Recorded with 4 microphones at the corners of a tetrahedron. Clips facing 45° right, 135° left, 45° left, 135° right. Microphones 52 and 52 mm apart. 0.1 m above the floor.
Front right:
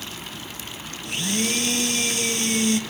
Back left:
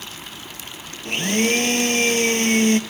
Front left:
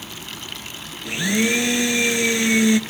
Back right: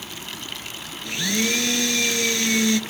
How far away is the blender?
About 0.6 m.